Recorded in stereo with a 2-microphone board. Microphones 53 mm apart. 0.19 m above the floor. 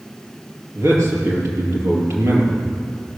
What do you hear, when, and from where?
0.8 s a man speaking: 70° right (ahead or behind), 4.5 m